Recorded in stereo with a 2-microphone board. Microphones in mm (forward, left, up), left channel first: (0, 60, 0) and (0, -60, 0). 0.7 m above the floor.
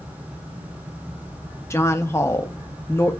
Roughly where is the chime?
No chime in this recording.